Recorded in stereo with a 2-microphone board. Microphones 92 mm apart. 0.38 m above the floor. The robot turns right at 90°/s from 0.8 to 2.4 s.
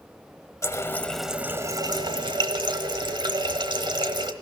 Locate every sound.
0.6 s a running tap: 140° left, 1.1 m; by 4.3 s 75° right, 1.1 m